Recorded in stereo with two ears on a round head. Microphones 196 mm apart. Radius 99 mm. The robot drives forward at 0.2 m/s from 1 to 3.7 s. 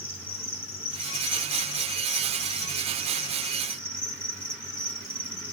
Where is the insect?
30° left (ahead or behind), 2.5 m; by 5.5 s 25° left (ahead or behind), 2.5 m.